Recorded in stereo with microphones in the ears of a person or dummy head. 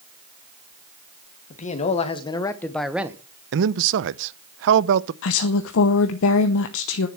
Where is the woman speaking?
70° left (ahead or behind), 0.9 m.